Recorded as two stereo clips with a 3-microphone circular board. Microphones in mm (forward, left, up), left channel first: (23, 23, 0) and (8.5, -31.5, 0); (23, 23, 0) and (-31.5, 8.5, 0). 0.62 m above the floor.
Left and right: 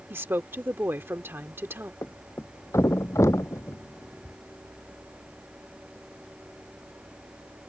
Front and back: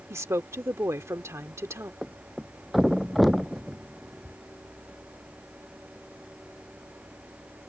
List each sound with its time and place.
0.1 s a woman speaking: 145° right
2.0 s a thud: 105° left